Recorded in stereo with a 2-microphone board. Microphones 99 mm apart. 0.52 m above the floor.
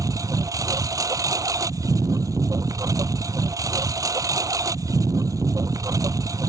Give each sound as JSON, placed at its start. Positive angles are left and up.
{"t": 0.0, "sound": "a lawn mower", "side_deg": -35}